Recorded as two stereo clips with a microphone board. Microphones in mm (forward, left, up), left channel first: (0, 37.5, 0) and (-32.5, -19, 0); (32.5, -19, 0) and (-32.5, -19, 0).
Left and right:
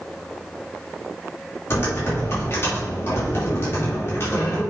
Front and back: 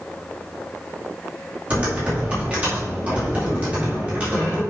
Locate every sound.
1.7 s typing on a keyboard: 115° left, 3.5 m